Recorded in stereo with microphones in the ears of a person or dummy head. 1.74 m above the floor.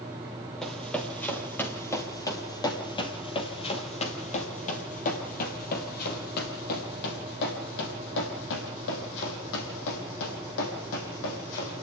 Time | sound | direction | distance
0.6 | running footsteps | 5° left (ahead or behind) | 3 m